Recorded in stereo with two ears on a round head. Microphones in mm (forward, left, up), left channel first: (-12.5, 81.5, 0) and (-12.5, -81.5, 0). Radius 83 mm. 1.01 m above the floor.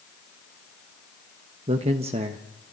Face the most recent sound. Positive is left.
turn(degrees=-35)  # may be behind; listen again after turning